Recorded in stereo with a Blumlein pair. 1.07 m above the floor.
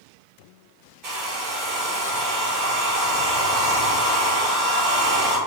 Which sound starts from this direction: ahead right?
A hair dryer, at 1.0 s.